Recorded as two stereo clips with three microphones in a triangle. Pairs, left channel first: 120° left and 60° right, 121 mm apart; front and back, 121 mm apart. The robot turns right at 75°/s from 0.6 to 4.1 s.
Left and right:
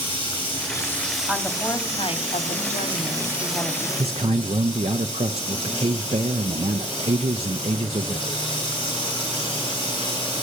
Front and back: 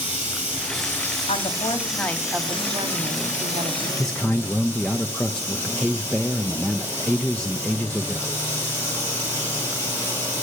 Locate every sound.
0.0 s running water: 170° left, 5 m; by 10.4 s 70° left, 5 m
1.3 s a woman speaking: 20° left, 1.2 m; by 3.9 s 145° right, 1.2 m
4.0 s a man speaking: 90° right, 0.5 m; by 8.4 s 85° right, 0.5 m